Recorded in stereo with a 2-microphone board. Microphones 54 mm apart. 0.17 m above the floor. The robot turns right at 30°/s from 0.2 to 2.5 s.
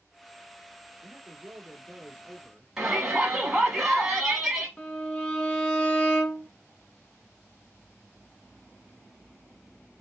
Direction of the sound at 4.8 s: 15° left (ahead or behind).